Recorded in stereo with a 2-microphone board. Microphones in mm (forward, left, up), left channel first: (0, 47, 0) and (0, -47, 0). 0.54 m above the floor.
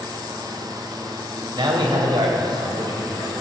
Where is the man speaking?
50° right (ahead or behind), 3 m.